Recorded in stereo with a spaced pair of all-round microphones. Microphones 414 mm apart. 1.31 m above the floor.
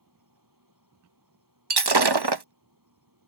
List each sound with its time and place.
0.0 s an insect: 50° right (ahead or behind)
1.7 s breaking glass: 65° right (ahead or behind)